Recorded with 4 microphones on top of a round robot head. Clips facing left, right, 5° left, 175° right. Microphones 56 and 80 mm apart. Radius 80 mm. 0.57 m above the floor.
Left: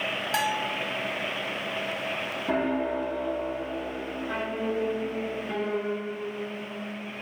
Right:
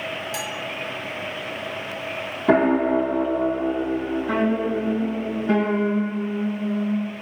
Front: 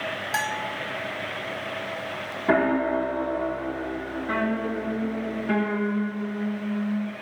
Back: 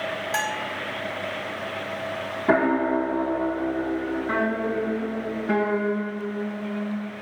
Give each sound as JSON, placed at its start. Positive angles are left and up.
{"t": 0.3, "sound": "a bell", "azimuth_deg": 85, "distance_m": 1.1}
{"t": 2.5, "sound": "a piano", "azimuth_deg": -100, "distance_m": 1.2}